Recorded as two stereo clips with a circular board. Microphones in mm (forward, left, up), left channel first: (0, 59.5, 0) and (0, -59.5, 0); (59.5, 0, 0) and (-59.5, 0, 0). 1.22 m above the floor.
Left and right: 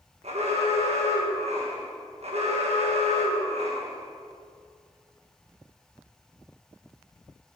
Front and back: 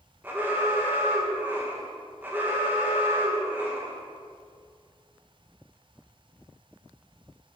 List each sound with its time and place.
0.2 s an alarm: 105° right, 1.5 m